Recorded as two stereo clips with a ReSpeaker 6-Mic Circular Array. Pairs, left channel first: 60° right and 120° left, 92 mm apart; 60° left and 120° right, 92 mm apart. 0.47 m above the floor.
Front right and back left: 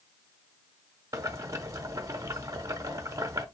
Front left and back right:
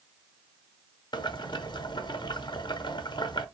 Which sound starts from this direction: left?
Boiling, at 1.1 s.